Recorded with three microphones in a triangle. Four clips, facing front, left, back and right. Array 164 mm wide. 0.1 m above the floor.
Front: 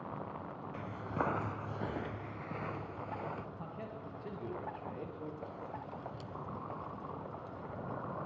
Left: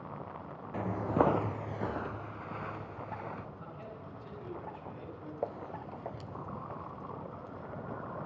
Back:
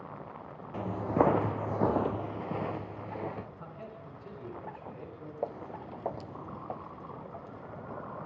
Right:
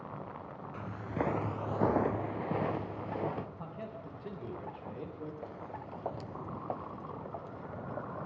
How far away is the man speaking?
About 7.5 m.